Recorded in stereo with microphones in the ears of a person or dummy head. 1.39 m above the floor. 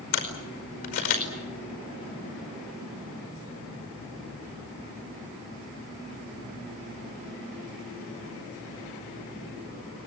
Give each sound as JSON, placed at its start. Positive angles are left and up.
{"t": 0.1, "sound": "a camera shutter", "side_deg": 45, "distance_m": 4.5}